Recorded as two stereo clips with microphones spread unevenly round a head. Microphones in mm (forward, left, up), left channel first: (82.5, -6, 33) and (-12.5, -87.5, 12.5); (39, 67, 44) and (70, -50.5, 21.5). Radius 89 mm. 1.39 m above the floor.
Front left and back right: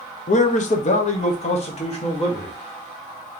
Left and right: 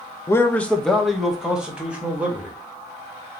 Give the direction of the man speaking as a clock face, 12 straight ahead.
11 o'clock.